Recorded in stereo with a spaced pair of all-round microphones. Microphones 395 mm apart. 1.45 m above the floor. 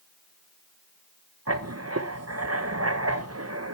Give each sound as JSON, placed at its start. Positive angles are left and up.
{"t": 1.5, "sound": "writing", "side_deg": -35, "distance_m": 1.1}